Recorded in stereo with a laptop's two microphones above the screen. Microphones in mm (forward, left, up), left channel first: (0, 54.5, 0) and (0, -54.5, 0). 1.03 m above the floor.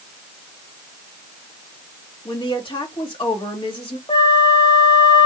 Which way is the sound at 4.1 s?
45° left (ahead or behind).